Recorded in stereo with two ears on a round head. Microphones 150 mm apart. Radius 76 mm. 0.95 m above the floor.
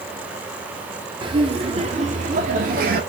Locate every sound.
1.2 s laughter: 30° right (ahead or behind), 2.5 m; by 3.0 s 55° right (ahead or behind), 2.5 m